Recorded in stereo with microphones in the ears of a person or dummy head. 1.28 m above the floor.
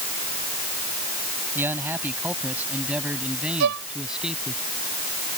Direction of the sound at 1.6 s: 15° right (ahead or behind).